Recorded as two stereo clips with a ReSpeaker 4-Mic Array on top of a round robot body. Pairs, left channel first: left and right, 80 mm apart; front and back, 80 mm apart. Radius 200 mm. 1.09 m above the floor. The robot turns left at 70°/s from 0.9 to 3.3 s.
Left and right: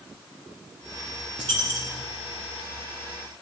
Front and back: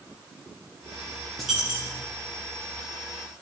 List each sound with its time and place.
1.4 s a dropped coin: 90° right, 0.7 m; by 2.1 s 135° right, 0.7 m